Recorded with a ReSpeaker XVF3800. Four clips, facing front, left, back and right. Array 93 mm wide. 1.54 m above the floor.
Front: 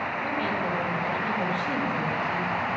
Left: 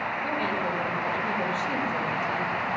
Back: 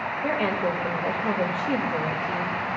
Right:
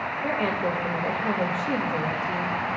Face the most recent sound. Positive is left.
turn(degrees=-150)